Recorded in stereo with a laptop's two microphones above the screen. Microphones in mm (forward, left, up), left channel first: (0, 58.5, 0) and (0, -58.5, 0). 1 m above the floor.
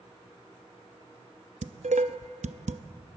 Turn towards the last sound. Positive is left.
turn(degrees=-80)